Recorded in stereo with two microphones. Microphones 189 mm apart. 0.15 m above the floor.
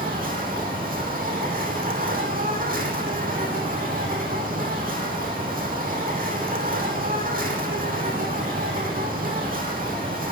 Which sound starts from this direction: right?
An insect, at 0.0 s.